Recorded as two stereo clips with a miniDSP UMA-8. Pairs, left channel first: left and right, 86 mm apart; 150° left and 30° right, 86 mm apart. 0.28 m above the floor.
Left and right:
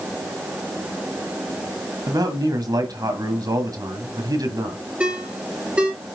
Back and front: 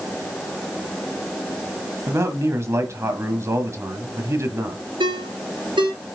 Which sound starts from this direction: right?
A man speaking, at 2.1 s.